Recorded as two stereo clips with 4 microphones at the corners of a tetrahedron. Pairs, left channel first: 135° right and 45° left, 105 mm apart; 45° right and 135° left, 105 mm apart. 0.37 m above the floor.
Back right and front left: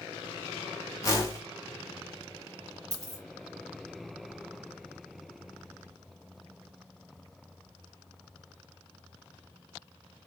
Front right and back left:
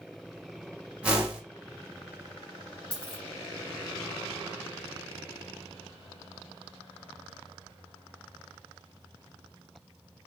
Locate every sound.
1.0 s a whoosh: 160° right, 0.8 m
2.9 s a dropped coin: 10° right, 1.7 m